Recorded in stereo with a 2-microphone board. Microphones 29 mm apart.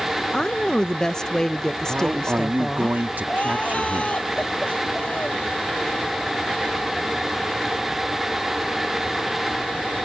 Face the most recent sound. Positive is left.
turn(degrees=45)  # may be behind; listen again after turning